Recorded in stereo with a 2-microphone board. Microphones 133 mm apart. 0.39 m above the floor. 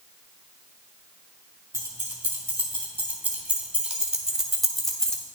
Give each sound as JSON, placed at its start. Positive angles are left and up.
{"t": 1.7, "sound": "keys jangling", "side_deg": -20, "distance_m": 2.5}